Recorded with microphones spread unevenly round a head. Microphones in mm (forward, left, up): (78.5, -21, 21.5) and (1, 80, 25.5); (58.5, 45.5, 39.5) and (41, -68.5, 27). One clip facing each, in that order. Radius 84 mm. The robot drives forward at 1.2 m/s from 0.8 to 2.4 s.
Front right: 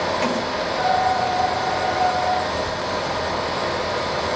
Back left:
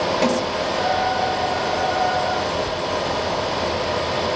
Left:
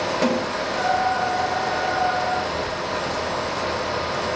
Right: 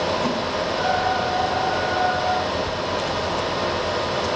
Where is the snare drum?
75° left, 9.5 m.